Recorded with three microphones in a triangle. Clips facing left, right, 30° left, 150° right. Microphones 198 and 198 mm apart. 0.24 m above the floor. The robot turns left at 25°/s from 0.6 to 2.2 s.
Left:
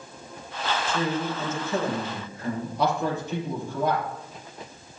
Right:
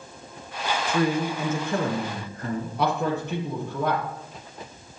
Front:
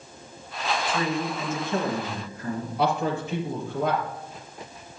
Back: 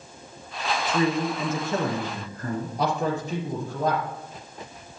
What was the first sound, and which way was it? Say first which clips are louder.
A man speaking: right 5 dB, back 6 dB; 85° right.